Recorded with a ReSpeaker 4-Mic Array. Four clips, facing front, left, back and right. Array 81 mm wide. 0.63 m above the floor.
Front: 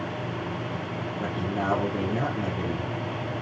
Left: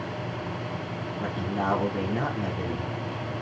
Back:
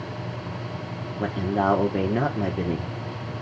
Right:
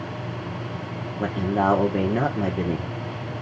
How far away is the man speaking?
About 1.1 m.